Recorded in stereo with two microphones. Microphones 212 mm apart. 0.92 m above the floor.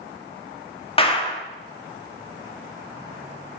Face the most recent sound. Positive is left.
turn(degrees=25)  # may be behind; listen again after turning